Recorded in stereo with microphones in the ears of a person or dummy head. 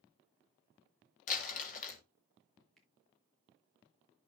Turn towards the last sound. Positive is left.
turn(degrees=0)  # may be behind; listen again after turning